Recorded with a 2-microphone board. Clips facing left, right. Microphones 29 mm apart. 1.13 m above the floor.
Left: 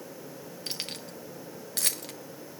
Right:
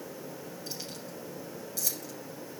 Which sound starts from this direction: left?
Keys jangling, at 0.7 s.